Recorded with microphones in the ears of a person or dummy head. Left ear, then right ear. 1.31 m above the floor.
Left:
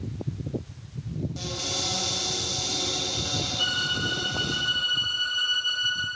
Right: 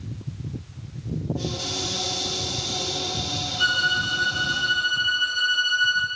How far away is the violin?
About 3 m.